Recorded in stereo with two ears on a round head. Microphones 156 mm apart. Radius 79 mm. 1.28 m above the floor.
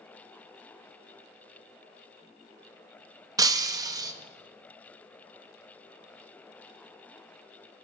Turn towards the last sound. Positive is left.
turn(degrees=-20)  # may be behind; listen again after turning